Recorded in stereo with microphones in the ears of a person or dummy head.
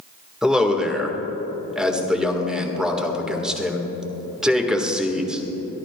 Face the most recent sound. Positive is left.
turn(degrees=0)  # may be behind; listen again after turning